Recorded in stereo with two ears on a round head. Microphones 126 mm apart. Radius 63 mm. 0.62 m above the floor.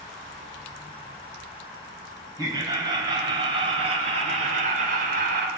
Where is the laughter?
25° right (ahead or behind), 4 m; by 5.5 s 65° right (ahead or behind), 2.5 m.